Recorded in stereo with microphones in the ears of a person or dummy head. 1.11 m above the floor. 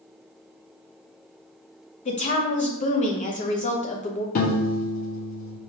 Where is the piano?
50° left (ahead or behind), 0.6 m.